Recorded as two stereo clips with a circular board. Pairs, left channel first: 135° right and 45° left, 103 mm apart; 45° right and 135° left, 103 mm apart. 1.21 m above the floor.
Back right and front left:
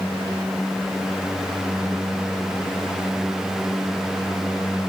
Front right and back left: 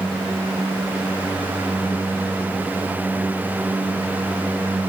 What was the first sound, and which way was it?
Only background noise.